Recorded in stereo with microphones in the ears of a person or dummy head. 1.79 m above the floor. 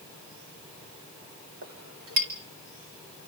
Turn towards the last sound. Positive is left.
turn(degrees=-55)  # may be behind; listen again after turning